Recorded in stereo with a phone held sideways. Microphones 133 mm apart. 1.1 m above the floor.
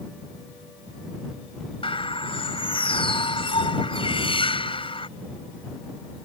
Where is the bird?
40° left (ahead or behind).